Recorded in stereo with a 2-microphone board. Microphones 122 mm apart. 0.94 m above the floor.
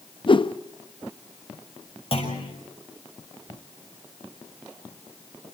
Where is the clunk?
50° left (ahead or behind), 6.5 m.